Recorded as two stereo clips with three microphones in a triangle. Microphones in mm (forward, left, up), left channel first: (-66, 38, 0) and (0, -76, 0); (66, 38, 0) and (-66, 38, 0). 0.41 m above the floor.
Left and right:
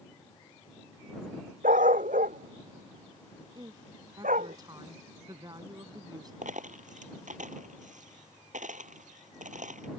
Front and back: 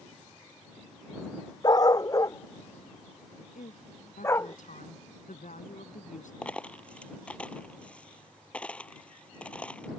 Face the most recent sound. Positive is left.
turn(degrees=-80)